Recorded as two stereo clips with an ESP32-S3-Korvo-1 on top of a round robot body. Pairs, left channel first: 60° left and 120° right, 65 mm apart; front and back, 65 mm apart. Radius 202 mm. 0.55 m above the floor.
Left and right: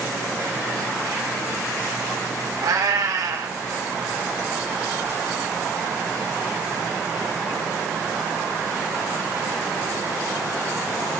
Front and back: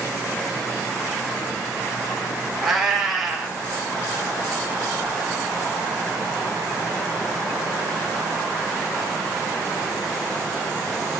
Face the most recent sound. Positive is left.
turn(degrees=-90)